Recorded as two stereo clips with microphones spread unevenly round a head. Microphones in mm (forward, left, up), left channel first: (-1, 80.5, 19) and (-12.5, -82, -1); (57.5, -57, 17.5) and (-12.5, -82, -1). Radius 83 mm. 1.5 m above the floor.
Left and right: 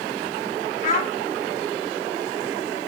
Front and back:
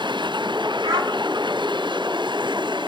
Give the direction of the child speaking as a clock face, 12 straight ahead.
8 o'clock.